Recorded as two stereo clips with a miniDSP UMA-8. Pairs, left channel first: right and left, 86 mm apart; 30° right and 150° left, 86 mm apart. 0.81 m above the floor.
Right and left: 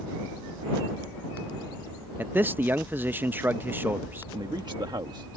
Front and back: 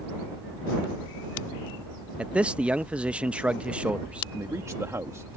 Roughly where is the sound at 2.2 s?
Left.